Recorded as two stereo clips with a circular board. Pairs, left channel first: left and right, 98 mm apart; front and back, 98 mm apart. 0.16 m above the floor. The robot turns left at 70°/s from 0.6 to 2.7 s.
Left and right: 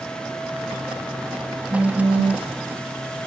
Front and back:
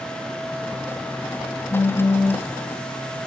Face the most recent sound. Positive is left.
turn(degrees=-110)